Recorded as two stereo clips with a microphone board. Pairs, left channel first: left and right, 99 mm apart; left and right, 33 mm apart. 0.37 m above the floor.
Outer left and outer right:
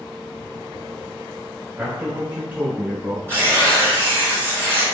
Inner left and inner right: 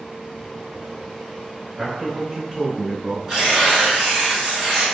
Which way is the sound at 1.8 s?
20° right (ahead or behind).